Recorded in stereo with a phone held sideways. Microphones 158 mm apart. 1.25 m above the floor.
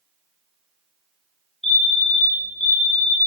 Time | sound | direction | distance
1.6 | a fire alarm | 40° left (ahead or behind) | 3 m